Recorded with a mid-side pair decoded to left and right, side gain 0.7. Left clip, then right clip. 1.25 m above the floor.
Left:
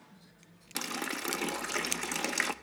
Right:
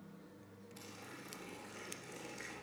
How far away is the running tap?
About 0.8 m.